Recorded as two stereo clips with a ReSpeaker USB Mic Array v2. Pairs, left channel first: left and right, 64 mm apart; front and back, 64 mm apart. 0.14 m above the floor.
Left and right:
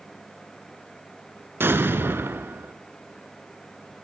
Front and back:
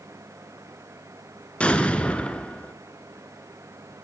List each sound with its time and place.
1.6 s an explosion: 60° right, 1.3 m